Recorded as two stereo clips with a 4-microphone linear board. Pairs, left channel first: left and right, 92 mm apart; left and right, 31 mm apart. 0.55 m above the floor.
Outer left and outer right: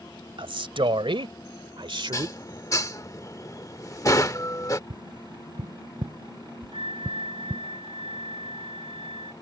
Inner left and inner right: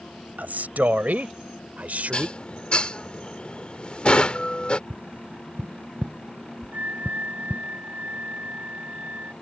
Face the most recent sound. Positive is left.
turn(degrees=-80)